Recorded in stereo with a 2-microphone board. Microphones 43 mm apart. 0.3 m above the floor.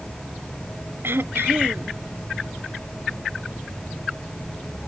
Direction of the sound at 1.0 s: 60° right (ahead or behind).